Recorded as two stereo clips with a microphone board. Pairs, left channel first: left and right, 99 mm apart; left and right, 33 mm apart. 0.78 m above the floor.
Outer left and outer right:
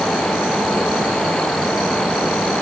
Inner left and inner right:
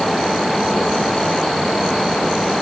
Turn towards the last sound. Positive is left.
No sound to turn to.